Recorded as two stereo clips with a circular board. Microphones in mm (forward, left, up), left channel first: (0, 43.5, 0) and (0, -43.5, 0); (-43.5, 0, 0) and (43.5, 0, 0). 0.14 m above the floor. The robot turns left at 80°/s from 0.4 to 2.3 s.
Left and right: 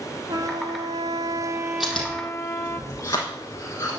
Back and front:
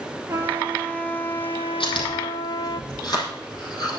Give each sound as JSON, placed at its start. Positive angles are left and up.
{"t": 0.3, "sound": "a trumpet", "azimuth_deg": -55, "distance_m": 0.9}
{"t": 1.8, "sound": "chewing", "azimuth_deg": -175, "distance_m": 4.5}